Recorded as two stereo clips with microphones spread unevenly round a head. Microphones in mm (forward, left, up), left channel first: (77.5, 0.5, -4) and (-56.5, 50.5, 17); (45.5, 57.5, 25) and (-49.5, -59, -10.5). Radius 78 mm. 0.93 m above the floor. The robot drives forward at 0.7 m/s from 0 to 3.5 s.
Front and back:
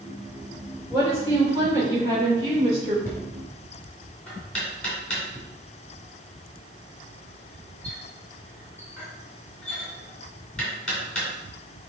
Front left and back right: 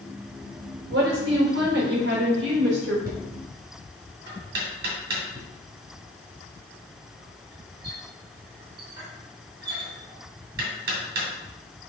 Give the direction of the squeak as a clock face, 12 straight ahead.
I don't hear a squeak.